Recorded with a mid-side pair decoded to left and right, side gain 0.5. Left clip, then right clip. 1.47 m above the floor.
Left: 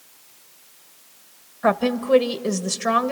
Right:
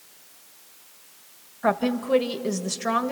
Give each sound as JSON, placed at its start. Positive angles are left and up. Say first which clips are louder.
{"t": 1.6, "sound": "a woman speaking", "louder": "left 4 dB", "azimuth_deg": 20, "distance_m": 1.5}